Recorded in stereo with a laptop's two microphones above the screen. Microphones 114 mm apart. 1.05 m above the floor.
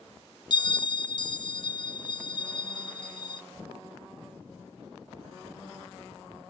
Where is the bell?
40° left (ahead or behind), 0.8 m.